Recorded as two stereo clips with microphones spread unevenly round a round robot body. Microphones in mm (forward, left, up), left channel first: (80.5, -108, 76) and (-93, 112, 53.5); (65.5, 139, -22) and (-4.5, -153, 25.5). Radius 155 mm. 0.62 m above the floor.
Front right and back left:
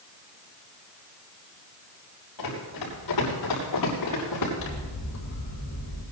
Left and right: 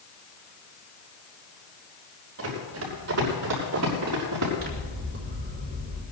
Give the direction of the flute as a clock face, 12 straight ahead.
No flute in this recording.